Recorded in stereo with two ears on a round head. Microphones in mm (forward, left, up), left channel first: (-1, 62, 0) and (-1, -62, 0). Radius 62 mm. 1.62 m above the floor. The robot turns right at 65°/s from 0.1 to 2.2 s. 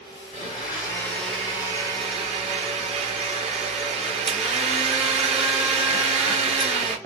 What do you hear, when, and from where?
0.3 s a blender: 115° left, 2.5 m; by 7.0 s 120° right, 2.5 m